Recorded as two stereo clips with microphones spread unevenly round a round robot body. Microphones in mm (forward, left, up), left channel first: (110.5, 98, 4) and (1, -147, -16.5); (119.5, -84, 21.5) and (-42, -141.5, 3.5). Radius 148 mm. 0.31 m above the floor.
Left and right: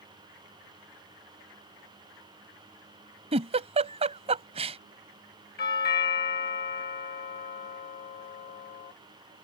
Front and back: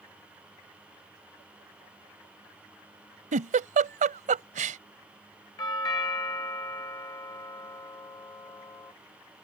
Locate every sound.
3.3 s a giggle: 175° right
5.6 s a doorbell: 80° left